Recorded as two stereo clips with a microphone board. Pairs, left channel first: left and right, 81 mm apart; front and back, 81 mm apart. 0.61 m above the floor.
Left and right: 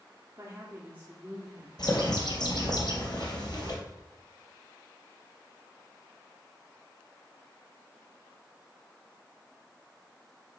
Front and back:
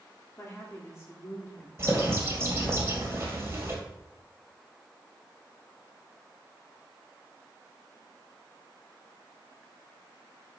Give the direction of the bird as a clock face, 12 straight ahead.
8 o'clock.